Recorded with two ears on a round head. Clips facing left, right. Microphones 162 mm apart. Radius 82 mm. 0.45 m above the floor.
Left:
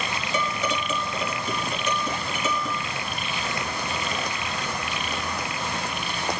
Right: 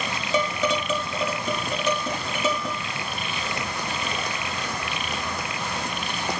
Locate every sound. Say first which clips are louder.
0.3 s dishes clattering: right 4 dB; 65° right (ahead or behind), 2 m